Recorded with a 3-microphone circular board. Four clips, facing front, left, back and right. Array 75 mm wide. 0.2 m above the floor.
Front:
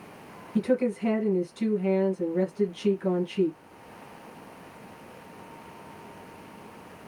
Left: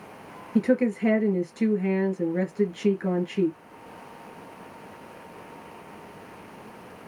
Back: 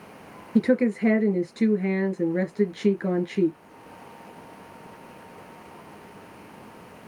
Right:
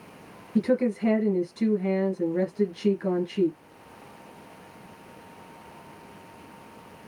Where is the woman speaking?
155° left, 2.5 m.